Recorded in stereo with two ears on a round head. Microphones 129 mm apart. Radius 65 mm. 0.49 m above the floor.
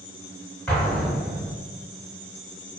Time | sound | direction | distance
0.7 | an explosion | 10° left (ahead or behind) | 0.9 m